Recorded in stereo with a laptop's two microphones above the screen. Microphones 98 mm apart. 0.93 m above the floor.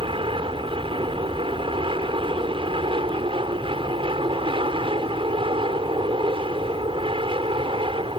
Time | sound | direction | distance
0.0 | an aircraft | 60° right (ahead or behind) | ?